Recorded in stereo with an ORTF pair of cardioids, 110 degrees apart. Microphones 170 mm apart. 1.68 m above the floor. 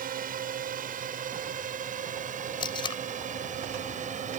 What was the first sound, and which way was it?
A drone, 55° right.